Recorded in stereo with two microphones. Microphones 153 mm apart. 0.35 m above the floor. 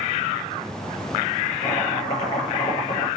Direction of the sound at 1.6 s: 35° left (ahead or behind).